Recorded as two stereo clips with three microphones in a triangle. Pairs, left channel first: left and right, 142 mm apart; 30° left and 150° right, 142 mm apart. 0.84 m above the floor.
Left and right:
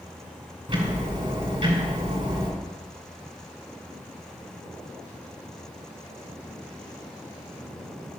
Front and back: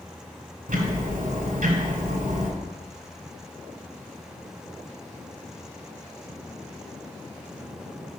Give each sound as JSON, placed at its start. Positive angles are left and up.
{"t": 0.7, "sound": "ticking", "azimuth_deg": -145, "distance_m": 2.0}